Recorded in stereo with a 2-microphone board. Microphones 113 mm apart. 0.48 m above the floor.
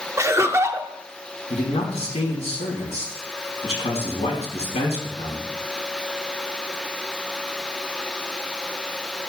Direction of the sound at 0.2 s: 25° right (ahead or behind).